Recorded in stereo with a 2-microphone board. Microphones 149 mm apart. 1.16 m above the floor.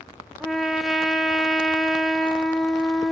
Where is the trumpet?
Centre (ahead or behind), 2 m.